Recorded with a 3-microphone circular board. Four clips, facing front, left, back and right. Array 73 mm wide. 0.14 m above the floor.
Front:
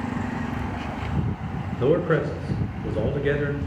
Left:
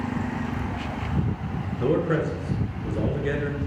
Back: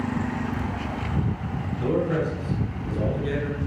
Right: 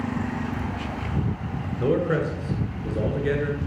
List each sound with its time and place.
1.8 s a man speaking: 5° right, 1.5 m